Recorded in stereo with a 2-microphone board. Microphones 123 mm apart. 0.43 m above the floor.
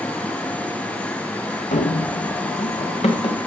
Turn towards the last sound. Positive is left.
turn(degrees=55)  # may be behind; listen again after turning